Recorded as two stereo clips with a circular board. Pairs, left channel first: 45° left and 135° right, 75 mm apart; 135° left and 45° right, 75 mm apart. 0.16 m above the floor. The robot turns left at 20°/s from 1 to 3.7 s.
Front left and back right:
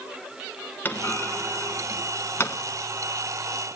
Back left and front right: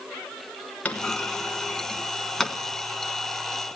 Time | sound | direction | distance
0.8 | a clunk | 80° left | 1.3 m